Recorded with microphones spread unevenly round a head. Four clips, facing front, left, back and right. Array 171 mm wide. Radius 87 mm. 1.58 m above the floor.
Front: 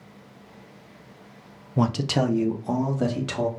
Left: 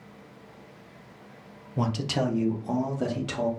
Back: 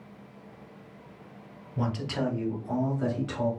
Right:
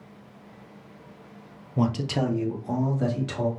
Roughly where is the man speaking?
Ahead.